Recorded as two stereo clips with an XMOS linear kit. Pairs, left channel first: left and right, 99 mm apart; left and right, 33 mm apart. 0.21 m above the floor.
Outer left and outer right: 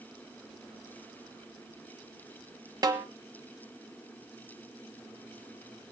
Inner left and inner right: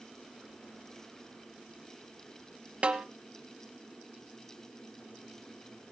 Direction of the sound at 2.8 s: 40° right (ahead or behind).